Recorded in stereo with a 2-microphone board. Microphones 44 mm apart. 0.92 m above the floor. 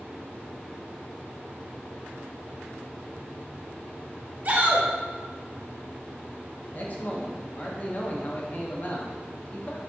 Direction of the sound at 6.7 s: 40° left (ahead or behind).